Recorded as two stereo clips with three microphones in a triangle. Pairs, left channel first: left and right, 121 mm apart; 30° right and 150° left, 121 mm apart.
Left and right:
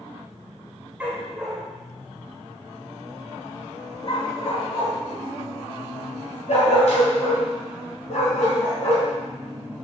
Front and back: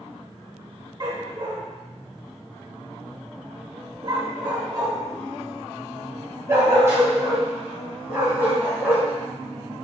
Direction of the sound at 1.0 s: 165° right.